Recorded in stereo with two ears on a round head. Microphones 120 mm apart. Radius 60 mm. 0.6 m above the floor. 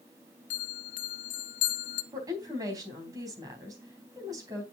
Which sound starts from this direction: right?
A woman speaking, at 2.1 s.